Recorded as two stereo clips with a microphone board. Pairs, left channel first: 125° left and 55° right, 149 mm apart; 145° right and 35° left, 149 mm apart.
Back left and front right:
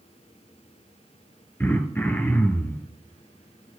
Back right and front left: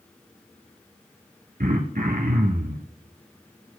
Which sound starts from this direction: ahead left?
Throat clearing, at 1.6 s.